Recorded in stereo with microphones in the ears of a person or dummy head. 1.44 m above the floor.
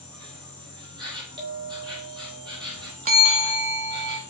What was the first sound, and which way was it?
An insect, 20° right (ahead or behind).